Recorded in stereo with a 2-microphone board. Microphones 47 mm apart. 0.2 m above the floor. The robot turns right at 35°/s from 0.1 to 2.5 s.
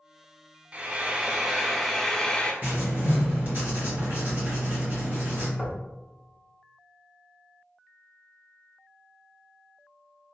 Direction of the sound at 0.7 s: 40° right.